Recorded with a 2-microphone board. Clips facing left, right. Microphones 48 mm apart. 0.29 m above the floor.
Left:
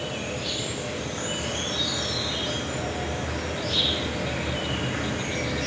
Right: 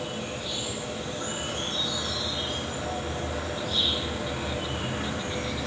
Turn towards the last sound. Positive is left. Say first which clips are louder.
# left 2 dB
turn(degrees=65)  # may be behind; listen again after turning